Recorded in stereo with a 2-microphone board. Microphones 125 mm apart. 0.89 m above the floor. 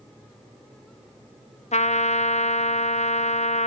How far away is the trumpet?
About 0.5 m.